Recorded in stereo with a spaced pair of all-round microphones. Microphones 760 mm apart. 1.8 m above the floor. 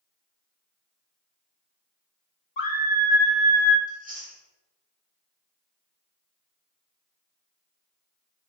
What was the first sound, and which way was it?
A scream, 80° left.